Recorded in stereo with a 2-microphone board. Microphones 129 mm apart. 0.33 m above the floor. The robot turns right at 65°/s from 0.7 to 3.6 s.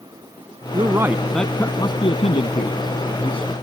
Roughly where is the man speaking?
Ahead right.